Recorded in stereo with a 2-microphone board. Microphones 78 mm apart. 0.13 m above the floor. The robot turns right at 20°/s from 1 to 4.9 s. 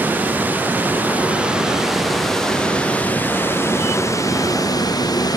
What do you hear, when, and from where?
0.0 s running water: 20° right; by 5.4 s 55° left